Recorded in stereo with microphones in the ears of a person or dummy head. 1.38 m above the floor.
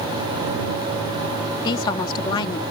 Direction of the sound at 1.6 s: 25° left (ahead or behind).